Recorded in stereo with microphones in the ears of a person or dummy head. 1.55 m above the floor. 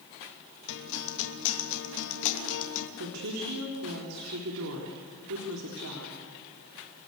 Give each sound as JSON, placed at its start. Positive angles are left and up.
{"t": 0.7, "sound": "a guitar", "side_deg": 70, "distance_m": 2.5}
{"t": 3.0, "sound": "a woman speaking", "side_deg": -80, "distance_m": 4.0}